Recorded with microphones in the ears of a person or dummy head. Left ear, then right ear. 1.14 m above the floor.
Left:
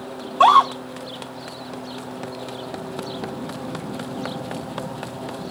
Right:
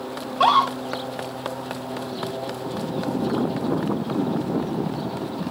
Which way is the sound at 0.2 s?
30° left (ahead or behind).